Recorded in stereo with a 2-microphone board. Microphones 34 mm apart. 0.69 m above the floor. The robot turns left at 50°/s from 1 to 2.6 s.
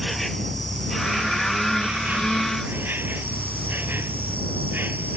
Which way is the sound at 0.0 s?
5° left.